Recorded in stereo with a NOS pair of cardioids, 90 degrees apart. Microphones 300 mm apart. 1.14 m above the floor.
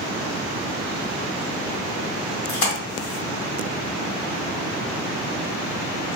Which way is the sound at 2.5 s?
35° left.